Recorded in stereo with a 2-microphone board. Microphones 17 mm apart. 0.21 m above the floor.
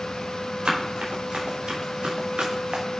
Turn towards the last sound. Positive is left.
turn(degrees=-80)